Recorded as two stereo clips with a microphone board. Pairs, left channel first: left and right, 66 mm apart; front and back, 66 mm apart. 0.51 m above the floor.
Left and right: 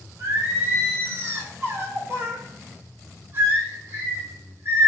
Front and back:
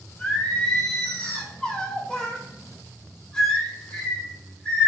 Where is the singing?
65° right, 1.7 m.